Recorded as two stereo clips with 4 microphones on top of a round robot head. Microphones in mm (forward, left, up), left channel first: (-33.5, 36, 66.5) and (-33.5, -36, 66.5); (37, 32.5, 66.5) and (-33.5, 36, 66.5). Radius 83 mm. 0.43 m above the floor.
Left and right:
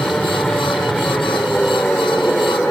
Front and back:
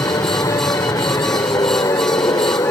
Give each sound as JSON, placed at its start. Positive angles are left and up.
{"t": 0.0, "sound": "an aircraft", "azimuth_deg": 5}